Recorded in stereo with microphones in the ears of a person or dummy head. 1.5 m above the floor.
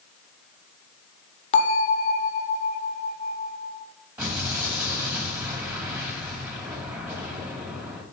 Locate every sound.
1.5 s a bell: 35° left (ahead or behind), 0.6 m
4.2 s an explosion: 10° right (ahead or behind), 2 m